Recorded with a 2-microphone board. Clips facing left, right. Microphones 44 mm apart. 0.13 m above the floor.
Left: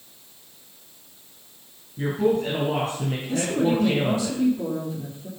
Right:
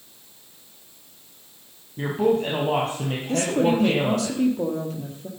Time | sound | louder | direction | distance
2.0 | a woman speaking | right 1 dB | 50° right (ahead or behind) | 3.5 m
3.3 | a woman speaking | right 2 dB | 65° right (ahead or behind) | 4.5 m